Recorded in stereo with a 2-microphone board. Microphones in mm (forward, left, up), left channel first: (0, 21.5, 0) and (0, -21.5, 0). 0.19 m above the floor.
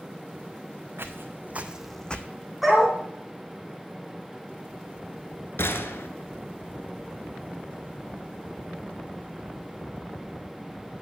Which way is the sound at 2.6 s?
Centre (ahead or behind).